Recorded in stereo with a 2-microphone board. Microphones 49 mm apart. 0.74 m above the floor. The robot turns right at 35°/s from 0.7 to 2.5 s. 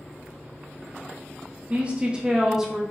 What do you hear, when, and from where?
1.7 s a woman speaking: 30° right (ahead or behind), 0.5 m; by 2.8 s 10° right (ahead or behind), 0.5 m